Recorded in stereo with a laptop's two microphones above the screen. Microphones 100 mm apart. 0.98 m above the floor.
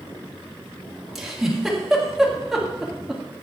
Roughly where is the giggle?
Centre.